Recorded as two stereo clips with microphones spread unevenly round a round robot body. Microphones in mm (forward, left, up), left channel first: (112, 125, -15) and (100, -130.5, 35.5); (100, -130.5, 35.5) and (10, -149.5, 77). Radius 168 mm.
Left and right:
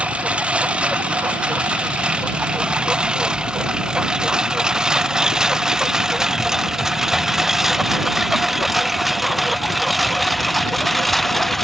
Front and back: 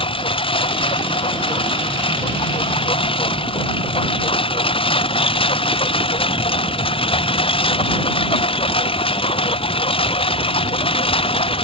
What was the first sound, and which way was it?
A lawn mower, 5° right.